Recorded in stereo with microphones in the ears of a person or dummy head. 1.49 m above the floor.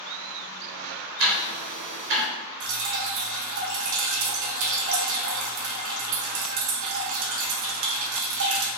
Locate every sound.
1.2 s ticking: 65° right (ahead or behind), 1.3 m
2.6 s dripping: 70° right (ahead or behind), 1.1 m